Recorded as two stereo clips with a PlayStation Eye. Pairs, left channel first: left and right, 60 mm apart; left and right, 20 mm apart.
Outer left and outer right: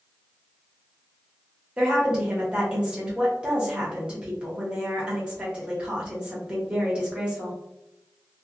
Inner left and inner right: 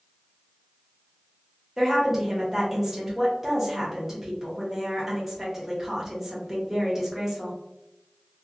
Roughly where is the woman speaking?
Centre.